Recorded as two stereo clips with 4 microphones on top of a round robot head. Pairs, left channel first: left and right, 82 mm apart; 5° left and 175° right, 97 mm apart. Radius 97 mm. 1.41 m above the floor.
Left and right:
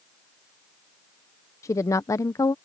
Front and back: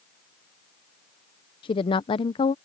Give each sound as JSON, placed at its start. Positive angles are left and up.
{"t": 1.6, "sound": "a woman speaking", "azimuth_deg": 40}